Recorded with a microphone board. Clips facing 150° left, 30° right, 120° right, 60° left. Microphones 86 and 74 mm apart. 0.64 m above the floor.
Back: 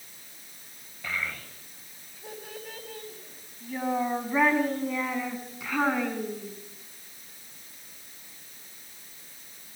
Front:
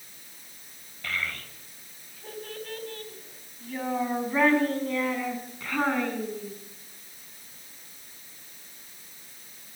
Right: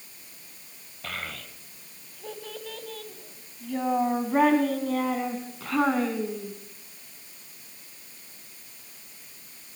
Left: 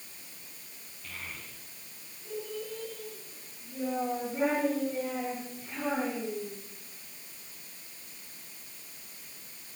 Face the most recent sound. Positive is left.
turn(degrees=-125)